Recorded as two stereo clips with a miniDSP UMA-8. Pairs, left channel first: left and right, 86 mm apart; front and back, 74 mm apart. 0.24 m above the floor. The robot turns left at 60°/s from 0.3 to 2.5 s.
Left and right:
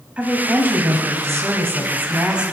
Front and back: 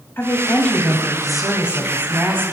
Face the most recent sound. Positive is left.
turn(degrees=-165)